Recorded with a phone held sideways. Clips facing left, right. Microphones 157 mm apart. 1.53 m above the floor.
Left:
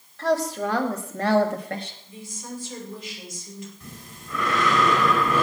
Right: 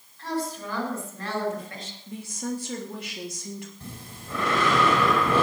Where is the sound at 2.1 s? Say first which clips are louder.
Right 6 dB; 70° right (ahead or behind), 3.5 m.